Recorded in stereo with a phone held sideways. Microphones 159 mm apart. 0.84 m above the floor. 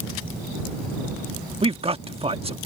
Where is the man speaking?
35° right (ahead or behind).